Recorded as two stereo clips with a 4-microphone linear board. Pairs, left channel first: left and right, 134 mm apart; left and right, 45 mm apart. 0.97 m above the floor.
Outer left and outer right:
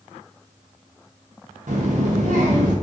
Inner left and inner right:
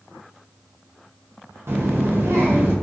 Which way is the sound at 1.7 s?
70° right (ahead or behind).